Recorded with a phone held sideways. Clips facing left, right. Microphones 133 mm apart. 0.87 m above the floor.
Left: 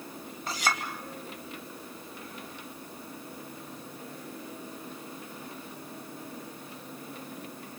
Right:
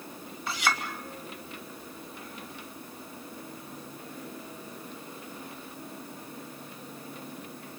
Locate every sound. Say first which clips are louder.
0.5 s a clink: right 1 dB; 45° left (ahead or behind), 2.5 m